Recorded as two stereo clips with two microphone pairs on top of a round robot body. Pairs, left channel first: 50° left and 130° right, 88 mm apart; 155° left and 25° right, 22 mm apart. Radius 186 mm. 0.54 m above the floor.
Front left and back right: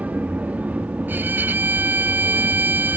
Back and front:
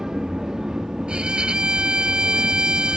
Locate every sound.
0.0 s an aircraft: 65° right
1.1 s a violin: 60° right